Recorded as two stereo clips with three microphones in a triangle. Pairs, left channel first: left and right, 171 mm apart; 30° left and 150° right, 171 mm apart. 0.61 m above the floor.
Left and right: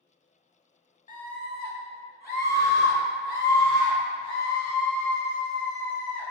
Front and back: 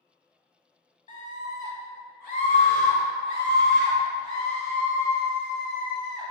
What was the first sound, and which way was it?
A scream, 65° left.